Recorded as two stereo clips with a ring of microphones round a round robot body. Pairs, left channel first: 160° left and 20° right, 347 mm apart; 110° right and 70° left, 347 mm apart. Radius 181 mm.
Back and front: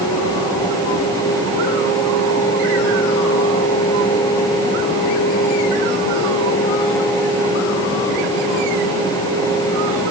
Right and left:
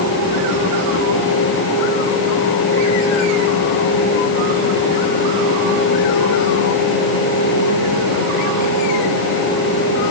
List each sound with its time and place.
Only background noise.